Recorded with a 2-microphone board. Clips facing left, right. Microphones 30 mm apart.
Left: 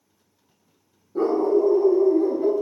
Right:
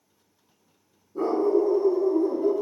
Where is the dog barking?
75° left (ahead or behind), 2 m; by 2.5 s 25° left (ahead or behind), 0.9 m.